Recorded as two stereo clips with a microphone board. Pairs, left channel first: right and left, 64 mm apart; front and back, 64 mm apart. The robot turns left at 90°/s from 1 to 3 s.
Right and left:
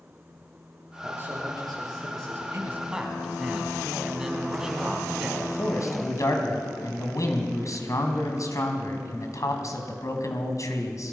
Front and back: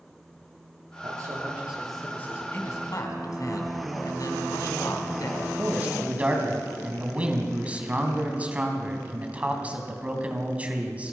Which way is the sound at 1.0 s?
165° left.